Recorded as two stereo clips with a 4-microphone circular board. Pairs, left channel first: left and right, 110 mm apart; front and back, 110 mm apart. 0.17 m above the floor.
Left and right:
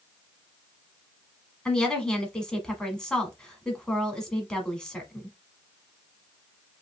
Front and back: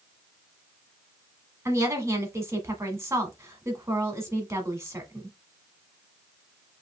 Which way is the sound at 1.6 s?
165° left.